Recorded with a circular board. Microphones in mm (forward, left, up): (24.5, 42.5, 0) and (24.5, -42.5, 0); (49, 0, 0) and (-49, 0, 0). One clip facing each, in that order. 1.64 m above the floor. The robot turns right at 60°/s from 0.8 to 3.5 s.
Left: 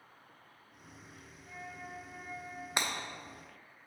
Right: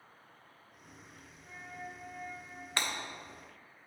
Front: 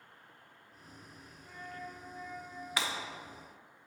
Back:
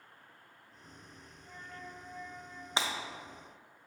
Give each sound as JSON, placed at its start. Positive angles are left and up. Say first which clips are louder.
{"t": 1.4, "sound": "a flute", "louder": "right 1 dB, front 3 dB", "azimuth_deg": -25, "distance_m": 2.5}
{"t": 2.8, "sound": "breaking glass", "louder": "left 1 dB, back 2 dB", "azimuth_deg": 145, "distance_m": 0.9}